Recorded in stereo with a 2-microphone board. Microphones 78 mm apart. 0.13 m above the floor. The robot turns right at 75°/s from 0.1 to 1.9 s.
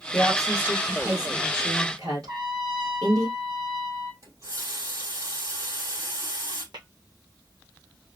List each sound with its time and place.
0.1 s a woman speaking: 110° left, 2.5 m; by 3.3 s 115° right, 2.5 m
2.3 s a trumpet: 80° right, 1.9 m
4.2 s a running tap: 40° right (ahead or behind), 2.5 m
6.7 s tapping: 75° right (ahead or behind), 1.6 m